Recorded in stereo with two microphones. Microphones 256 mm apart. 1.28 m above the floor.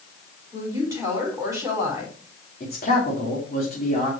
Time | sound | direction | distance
0.5 | a woman speaking | 10° right (ahead or behind) | 5 m
2.6 | a man speaking | 40° left (ahead or behind) | 2.5 m